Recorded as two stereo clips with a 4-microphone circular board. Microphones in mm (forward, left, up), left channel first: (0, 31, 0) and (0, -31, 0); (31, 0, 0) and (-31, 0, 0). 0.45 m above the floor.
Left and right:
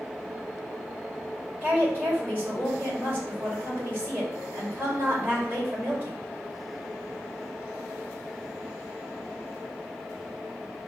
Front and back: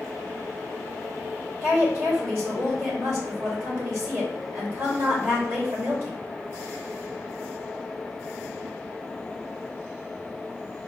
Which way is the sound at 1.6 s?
150° right.